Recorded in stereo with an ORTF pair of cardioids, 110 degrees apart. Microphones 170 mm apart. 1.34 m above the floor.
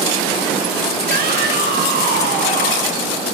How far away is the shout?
About 8 m.